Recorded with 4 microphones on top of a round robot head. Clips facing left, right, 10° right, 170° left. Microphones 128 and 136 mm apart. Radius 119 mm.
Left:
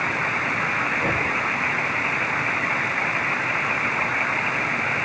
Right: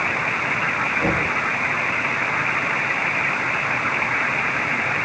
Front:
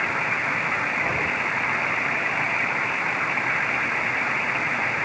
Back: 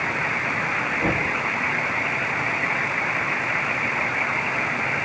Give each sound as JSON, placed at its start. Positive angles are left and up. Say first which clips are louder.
{"t": 1.0, "sound": "knocking", "louder": "right 5 dB, back 6 dB", "azimuth_deg": -145, "distance_m": 3.5}